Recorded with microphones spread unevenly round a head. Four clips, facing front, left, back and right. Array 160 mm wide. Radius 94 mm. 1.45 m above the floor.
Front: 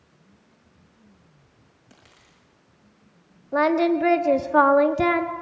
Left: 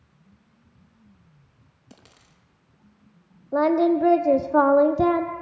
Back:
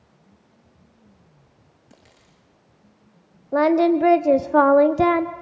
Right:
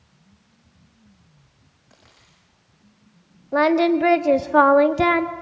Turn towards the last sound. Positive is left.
turn(degrees=180)